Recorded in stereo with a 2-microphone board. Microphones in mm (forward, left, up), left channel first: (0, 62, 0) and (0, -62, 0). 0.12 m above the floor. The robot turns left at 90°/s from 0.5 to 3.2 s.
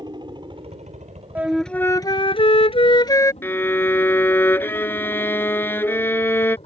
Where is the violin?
20° left (ahead or behind).